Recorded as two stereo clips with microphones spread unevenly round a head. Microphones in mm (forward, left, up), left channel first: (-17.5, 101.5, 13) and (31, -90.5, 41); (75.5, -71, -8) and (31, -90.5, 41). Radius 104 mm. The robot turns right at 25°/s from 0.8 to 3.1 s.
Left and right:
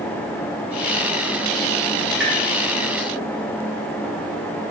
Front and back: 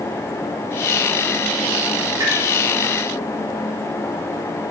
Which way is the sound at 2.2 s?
165° right.